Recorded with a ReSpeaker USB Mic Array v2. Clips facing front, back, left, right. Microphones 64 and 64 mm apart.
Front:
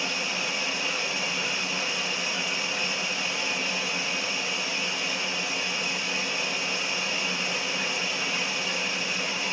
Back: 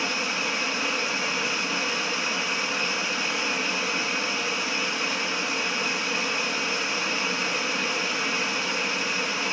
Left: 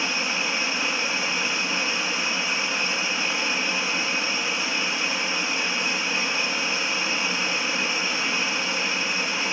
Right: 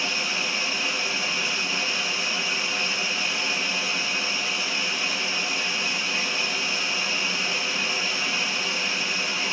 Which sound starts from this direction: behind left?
Running water, at 0.0 s.